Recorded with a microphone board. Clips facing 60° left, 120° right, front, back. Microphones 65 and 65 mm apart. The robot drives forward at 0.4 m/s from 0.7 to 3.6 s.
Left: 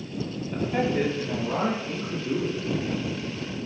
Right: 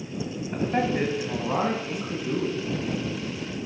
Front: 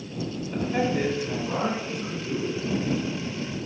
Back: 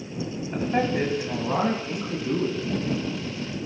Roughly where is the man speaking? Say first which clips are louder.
Even, back 1 dB; behind right.